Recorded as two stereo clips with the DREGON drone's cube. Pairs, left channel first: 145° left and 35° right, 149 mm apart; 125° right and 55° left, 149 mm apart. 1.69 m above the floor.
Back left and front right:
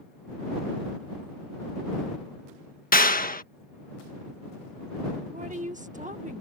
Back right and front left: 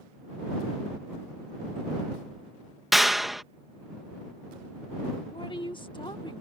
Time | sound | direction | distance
2.9 | a clap | 145° left | ?
5.3 | a woman speaking | 70° right | ?